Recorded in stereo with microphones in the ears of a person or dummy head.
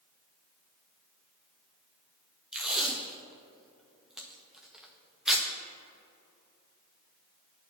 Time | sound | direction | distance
2.5 | tape being pulled | centre (ahead or behind) | 0.6 m